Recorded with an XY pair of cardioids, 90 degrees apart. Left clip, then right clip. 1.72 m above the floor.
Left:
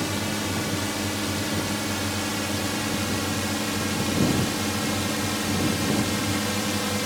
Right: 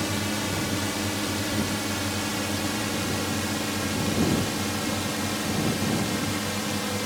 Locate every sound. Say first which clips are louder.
0.0 s a drone: even; straight ahead; by 7.1 s 20° left